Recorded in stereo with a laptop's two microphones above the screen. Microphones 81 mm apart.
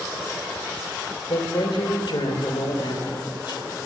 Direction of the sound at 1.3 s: 65° left (ahead or behind).